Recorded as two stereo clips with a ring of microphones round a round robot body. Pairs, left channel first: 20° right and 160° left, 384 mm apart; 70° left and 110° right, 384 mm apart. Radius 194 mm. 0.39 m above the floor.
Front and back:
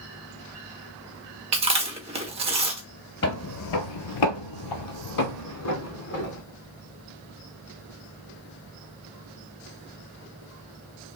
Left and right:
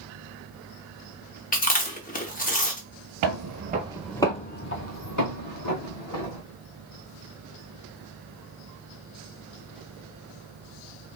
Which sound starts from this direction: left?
Chewing, at 1.5 s.